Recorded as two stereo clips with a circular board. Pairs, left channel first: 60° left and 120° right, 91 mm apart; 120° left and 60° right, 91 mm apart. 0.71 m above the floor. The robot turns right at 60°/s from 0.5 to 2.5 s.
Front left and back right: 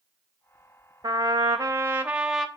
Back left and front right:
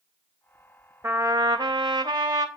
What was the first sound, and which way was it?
A trumpet, 110° right.